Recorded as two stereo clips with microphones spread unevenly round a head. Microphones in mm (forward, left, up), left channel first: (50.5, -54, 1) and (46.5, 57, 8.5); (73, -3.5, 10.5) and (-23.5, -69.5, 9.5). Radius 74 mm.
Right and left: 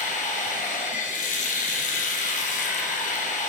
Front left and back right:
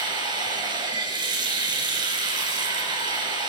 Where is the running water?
95° right, 3 m.